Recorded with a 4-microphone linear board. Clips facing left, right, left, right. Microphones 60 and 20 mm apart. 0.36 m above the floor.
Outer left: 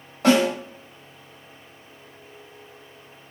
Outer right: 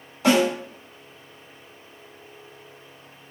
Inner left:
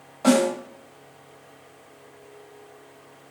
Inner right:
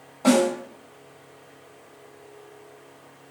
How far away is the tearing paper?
I don't hear tearing paper.